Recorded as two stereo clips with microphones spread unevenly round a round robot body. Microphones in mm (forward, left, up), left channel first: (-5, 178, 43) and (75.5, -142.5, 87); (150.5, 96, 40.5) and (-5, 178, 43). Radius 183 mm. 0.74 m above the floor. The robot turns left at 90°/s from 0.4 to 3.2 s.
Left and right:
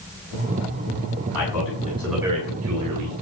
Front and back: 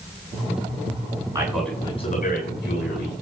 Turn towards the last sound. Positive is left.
turn(degrees=-80)